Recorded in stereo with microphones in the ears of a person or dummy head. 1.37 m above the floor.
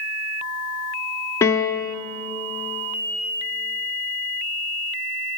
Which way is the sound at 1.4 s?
10° left (ahead or behind).